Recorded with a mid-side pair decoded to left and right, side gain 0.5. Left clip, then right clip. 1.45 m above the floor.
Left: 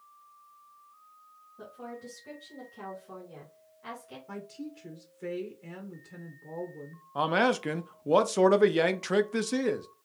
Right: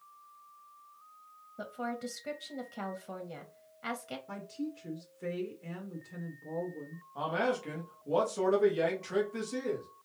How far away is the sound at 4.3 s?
About 1.2 m.